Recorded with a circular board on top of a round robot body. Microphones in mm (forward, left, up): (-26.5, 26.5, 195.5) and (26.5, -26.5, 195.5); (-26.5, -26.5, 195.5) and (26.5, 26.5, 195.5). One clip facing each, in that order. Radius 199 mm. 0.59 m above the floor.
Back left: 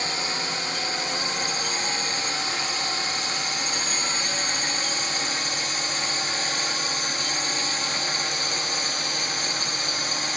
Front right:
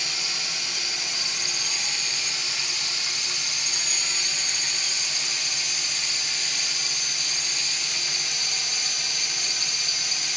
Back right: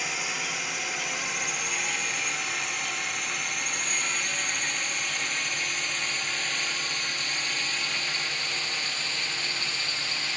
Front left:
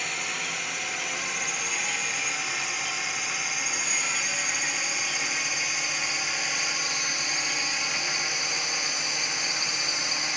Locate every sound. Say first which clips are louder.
0.0 s a drone: back left 6 dB, even; 140° left; by 10.4 s 115° left